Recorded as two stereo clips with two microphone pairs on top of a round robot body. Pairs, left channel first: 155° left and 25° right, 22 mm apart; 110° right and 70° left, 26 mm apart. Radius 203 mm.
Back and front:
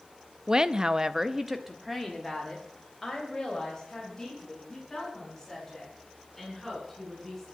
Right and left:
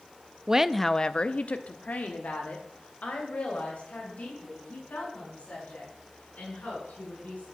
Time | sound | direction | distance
0.5 | a woman speaking | 25° left | 1.0 m